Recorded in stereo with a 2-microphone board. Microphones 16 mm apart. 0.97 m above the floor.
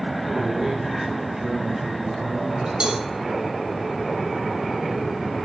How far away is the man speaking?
About 3 m.